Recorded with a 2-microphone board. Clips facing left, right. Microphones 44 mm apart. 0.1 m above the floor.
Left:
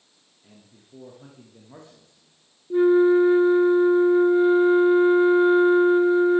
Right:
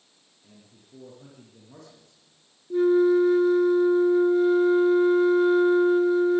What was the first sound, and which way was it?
A man speaking, 20° left (ahead or behind).